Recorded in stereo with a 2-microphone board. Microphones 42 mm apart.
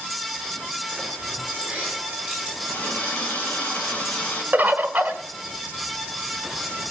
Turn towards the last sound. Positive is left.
turn(degrees=-45)  # may be behind; listen again after turning